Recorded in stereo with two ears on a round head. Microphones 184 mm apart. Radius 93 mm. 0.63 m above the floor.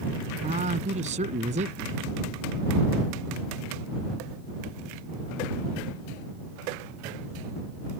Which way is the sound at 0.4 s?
35° right (ahead or behind).